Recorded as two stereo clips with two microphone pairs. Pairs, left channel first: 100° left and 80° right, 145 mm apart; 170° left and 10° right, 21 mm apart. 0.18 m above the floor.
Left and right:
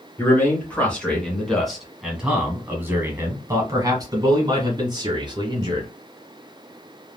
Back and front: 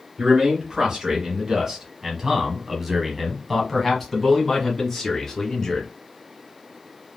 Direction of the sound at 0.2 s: 30° left.